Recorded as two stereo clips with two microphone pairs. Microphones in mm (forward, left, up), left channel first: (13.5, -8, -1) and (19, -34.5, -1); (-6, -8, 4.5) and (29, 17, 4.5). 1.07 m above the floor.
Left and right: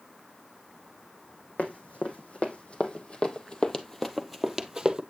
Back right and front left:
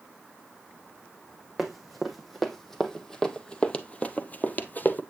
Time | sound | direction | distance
1.6 | running footsteps | 125° left | 2.5 m